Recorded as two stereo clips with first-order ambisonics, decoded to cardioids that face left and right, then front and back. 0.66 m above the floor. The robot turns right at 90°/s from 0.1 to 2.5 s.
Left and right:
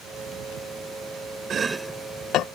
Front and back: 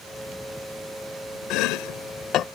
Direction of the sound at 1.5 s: 30° right.